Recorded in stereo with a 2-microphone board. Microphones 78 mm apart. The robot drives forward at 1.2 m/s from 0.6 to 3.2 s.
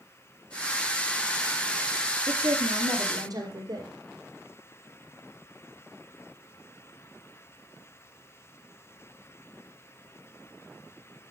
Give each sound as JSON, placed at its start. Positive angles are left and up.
{"t": 2.3, "sound": "a woman speaking", "side_deg": -50, "distance_m": 2.5}